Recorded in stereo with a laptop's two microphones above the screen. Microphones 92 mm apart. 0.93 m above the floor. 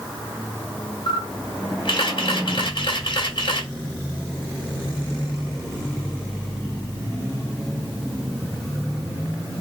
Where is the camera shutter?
65° left (ahead or behind), 1.9 m.